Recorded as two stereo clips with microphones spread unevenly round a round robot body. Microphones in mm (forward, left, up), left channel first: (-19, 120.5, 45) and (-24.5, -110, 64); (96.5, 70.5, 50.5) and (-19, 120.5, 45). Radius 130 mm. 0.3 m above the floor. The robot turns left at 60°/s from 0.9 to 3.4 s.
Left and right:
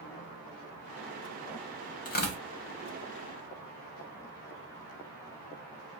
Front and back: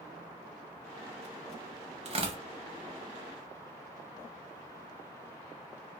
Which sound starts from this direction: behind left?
Tearing paper, at 2.0 s.